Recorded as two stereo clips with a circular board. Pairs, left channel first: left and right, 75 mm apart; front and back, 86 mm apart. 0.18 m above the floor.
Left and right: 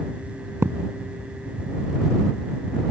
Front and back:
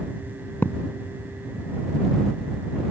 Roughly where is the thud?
Ahead right.